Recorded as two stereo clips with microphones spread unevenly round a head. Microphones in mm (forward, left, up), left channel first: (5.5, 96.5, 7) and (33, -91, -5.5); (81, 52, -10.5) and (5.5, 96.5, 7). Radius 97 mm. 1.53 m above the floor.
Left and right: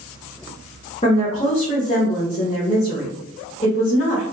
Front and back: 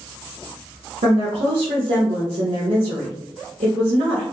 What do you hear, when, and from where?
1.0 s a woman speaking: 155° left, 0.7 m